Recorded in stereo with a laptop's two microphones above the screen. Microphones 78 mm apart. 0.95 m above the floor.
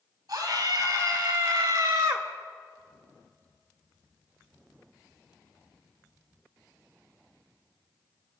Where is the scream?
65° right (ahead or behind), 5.5 m; by 2.3 s 60° right (ahead or behind), 2 m.